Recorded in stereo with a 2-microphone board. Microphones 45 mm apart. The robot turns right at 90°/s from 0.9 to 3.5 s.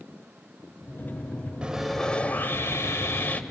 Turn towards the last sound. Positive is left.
turn(degrees=145)